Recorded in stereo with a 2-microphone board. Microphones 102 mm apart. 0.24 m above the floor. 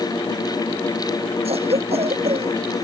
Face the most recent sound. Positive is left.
turn(degrees=-85)